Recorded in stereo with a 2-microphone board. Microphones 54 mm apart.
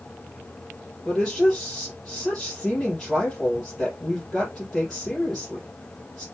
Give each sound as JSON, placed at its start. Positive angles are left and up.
{"t": 1.1, "sound": "a woman speaking", "side_deg": 15, "distance_m": 3.0}